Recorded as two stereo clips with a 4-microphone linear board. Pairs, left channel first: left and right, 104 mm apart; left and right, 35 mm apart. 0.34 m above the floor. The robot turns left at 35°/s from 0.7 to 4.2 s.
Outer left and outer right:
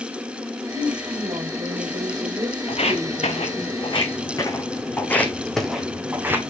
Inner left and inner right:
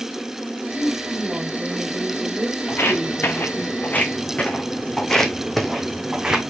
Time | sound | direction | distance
0.7 | a woman speaking | 70° right | 1.0 m
2.7 | footsteps | 70° left (ahead or behind) | 1.9 m